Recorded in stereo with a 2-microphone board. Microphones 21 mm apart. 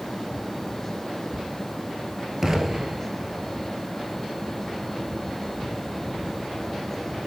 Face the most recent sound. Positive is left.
turn(degrees=-25)  # may be behind; listen again after turning